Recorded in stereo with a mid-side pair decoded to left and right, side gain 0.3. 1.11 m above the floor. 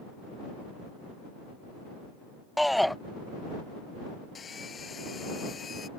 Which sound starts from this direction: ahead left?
Sawing, at 4.3 s.